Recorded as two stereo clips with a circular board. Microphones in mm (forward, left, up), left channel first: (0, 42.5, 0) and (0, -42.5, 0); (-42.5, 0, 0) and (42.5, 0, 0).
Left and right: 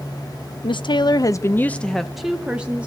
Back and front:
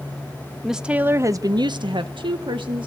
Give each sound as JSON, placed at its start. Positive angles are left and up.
{"t": 0.6, "sound": "a woman speaking", "azimuth_deg": 85, "distance_m": 0.7}